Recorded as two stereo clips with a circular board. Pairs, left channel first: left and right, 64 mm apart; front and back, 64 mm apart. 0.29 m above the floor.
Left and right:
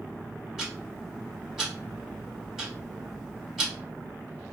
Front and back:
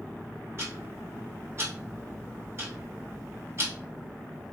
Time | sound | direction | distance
0.6 | ticking | 170° right | 2 m